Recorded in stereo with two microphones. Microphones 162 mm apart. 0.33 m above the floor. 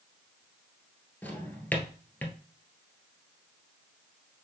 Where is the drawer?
10° left (ahead or behind), 1.4 m.